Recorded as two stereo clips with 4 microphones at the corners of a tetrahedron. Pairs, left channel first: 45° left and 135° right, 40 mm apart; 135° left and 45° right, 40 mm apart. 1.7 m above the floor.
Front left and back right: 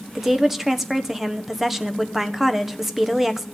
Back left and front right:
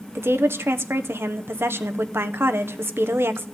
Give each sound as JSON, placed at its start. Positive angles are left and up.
{"t": 0.1, "sound": "a woman speaking", "azimuth_deg": -55, "distance_m": 1.2}